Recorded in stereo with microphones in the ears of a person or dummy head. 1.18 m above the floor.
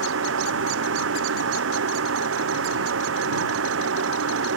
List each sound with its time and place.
0.0 s a fan: 85° right